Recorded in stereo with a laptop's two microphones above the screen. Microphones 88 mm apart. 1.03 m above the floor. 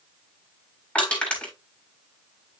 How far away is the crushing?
About 6.5 m.